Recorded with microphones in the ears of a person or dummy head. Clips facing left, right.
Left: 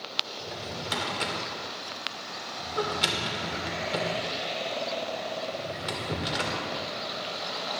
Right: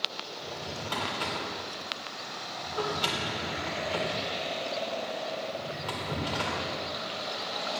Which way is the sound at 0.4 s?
30° left (ahead or behind).